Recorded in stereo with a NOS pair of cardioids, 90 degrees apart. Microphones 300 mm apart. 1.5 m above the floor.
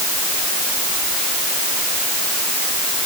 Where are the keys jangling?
No keys jangling in this recording.